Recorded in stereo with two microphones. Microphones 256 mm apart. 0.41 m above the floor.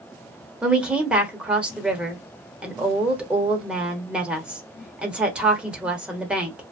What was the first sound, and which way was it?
A woman speaking, 5° right (ahead or behind).